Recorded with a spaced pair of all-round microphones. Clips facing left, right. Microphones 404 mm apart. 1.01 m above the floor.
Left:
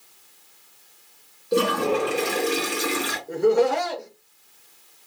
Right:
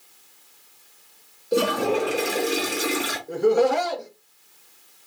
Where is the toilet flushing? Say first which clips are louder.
Even; 10° left (ahead or behind), 0.7 m.